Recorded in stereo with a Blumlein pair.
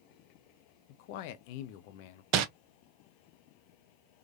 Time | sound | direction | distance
0.9 | a man speaking | 45° left | 0.6 m
2.3 | crumpling | 40° right | 0.6 m